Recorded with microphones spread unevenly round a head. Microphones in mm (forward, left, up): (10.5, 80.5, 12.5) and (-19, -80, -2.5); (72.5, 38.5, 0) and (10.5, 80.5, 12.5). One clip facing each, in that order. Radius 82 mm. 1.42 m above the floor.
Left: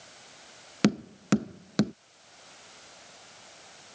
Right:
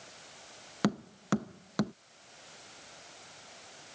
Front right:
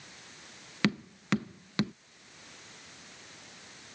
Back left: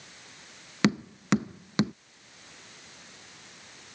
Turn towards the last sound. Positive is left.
turn(degrees=105)